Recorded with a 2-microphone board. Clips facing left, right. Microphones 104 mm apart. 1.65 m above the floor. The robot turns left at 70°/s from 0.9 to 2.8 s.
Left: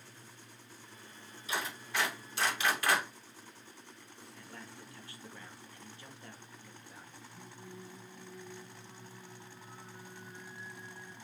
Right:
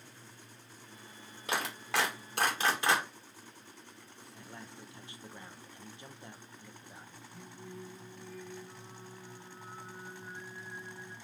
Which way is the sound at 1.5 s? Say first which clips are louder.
Right 3 dB; 65° right (ahead or behind).